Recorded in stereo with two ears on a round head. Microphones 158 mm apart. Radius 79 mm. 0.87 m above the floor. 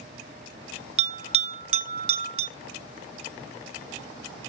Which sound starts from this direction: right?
A bell, at 1.0 s.